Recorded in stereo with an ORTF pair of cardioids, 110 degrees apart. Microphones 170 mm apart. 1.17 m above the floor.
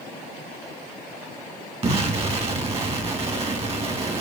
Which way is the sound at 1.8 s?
35° right.